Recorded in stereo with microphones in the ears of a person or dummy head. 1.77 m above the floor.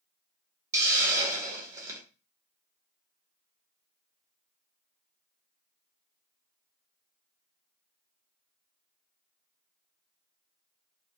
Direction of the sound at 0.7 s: 20° right (ahead or behind).